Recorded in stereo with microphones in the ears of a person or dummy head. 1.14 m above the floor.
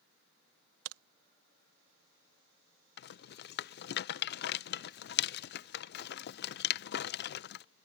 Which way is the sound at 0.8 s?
70° right (ahead or behind).